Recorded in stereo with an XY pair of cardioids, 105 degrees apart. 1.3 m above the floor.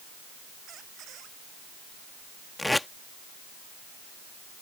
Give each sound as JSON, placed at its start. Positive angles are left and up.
{"t": 0.7, "sound": "a squeak", "azimuth_deg": -70}
{"t": 2.6, "sound": "tape being pulled", "azimuth_deg": 10}